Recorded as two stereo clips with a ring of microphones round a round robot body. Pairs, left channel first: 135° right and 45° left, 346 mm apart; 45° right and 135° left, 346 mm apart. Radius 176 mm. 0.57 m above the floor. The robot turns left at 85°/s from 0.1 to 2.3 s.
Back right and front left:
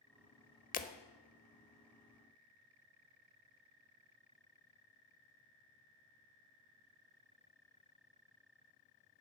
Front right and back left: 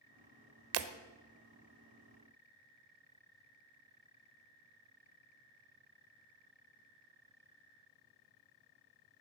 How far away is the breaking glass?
About 1.1 m.